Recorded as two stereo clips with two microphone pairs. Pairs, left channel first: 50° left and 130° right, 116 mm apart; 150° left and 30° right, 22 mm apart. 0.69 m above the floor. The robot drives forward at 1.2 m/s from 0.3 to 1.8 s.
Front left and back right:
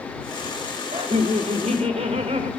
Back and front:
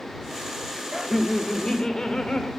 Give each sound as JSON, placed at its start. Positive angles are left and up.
{"t": 0.9, "sound": "laughter", "azimuth_deg": -110, "distance_m": 1.0}